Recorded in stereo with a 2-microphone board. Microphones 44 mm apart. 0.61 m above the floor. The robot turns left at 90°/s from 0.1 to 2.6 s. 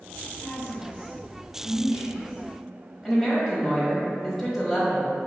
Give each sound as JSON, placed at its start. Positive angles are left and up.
{"t": 0.4, "sound": "a woman speaking", "side_deg": 60, "distance_m": 1.4}
{"t": 3.0, "sound": "a woman speaking", "side_deg": 0, "distance_m": 1.2}